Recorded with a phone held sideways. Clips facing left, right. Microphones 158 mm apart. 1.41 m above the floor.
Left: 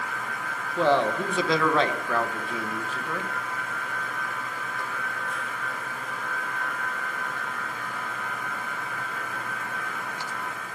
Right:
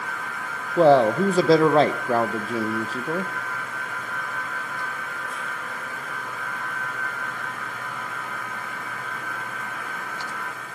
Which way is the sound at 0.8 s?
35° right (ahead or behind).